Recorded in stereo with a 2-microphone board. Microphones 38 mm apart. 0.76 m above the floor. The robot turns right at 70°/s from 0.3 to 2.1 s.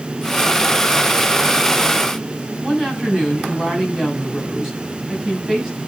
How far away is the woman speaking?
About 6.5 m.